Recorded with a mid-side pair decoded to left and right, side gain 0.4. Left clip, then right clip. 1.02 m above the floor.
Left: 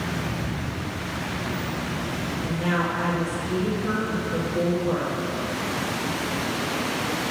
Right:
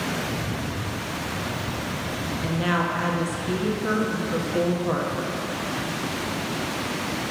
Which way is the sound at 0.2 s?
20° right.